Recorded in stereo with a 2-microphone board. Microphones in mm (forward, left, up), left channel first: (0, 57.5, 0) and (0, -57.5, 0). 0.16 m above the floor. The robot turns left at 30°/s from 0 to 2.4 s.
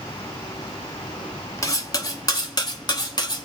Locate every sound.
1.6 s cutlery clinking: 30° left (ahead or behind), 1.0 m; by 3.5 s 40° left (ahead or behind), 1.0 m